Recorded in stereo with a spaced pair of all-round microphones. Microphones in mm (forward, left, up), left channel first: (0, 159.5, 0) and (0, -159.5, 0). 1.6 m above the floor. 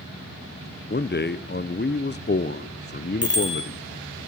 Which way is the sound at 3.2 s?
45° left (ahead or behind).